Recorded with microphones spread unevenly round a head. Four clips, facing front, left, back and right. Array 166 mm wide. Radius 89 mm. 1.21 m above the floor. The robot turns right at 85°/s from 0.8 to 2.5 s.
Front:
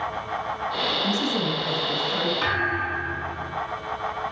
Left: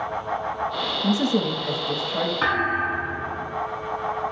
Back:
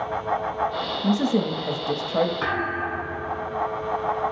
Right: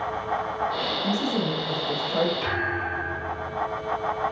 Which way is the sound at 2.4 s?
80° left.